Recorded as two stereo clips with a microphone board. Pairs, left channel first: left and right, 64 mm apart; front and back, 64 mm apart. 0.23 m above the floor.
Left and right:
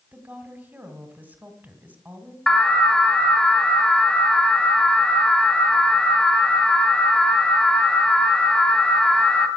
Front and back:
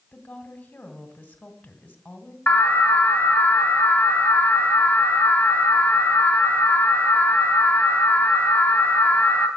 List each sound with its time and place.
0.1 s a woman speaking: 50° right, 1.9 m
2.5 s an alarm: 25° left, 1.8 m